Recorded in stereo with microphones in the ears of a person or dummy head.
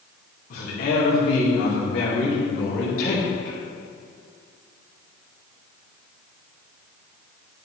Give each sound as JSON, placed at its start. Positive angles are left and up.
{"t": 0.5, "sound": "a man speaking", "side_deg": 50, "distance_m": 2.5}